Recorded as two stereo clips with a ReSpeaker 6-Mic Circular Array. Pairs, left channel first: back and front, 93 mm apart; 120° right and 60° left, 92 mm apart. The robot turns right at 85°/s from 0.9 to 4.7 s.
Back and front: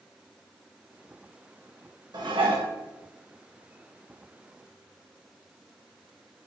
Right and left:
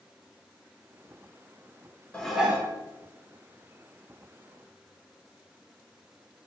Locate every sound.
2.1 s dishes clattering: 45° right, 0.6 m; by 2.7 s straight ahead, 0.6 m